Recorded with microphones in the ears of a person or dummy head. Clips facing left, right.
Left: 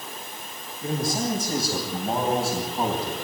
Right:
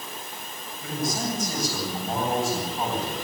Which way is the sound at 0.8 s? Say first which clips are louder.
Left 3 dB; 30° left (ahead or behind).